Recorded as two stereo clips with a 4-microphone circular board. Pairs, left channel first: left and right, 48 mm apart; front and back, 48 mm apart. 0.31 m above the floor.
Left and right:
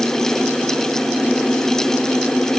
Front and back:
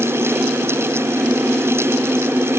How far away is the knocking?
No knocking in this recording.